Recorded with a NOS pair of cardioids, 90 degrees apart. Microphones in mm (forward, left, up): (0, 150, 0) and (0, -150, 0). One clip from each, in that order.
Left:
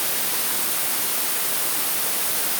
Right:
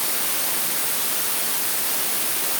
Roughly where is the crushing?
I don't hear crushing.